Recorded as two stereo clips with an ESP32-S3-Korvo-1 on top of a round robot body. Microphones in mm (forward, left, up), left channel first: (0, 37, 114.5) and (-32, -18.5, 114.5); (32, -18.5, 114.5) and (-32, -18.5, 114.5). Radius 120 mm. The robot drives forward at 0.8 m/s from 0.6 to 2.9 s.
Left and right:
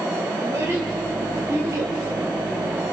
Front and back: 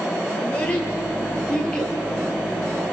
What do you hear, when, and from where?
0.4 s a child speaking: 70° right, 6.5 m; by 1.9 s 80° right, 6 m